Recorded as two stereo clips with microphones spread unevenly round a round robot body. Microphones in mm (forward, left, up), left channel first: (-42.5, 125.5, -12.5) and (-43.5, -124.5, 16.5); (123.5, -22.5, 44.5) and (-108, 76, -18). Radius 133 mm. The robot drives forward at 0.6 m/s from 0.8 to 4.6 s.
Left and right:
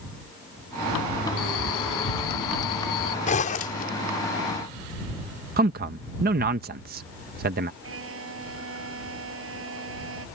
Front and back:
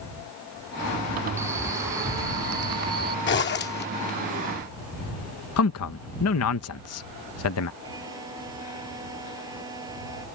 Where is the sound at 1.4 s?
75° left; by 3.2 s 85° left.